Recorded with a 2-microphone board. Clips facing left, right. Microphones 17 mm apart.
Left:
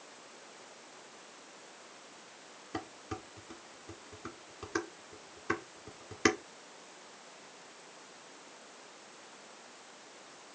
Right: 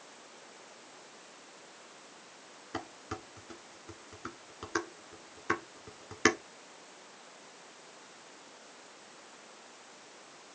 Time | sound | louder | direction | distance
2.7 | dishes clattering | right 1 dB | 20° right (ahead or behind) | 1.8 m